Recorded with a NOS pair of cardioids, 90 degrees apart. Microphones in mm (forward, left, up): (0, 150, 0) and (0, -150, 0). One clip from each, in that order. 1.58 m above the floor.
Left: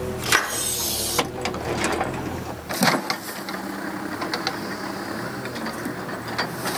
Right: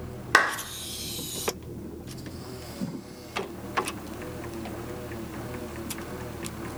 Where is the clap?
10° right, 0.8 m.